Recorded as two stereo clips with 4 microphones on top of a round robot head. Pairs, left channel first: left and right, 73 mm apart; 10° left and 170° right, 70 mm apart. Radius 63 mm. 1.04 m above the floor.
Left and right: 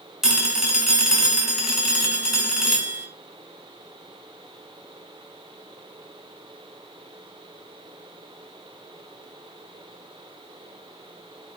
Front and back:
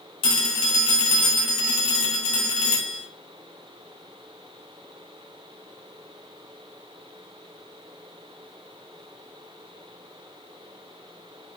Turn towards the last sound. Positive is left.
turn(degrees=-5)